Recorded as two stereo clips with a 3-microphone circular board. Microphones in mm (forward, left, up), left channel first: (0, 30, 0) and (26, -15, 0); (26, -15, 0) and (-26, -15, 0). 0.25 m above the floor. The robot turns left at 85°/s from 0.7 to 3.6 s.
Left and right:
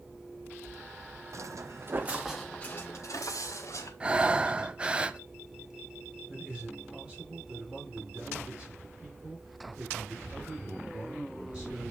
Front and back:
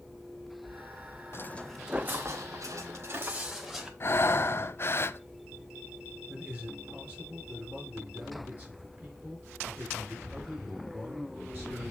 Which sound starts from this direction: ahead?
Breathing, at 4.0 s.